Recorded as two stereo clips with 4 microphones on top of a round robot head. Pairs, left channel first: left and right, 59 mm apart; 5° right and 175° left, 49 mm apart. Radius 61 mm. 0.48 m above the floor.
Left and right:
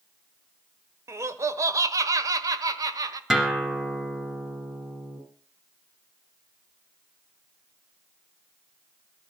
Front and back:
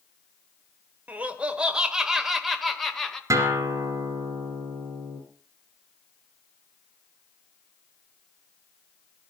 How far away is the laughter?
About 1.6 m.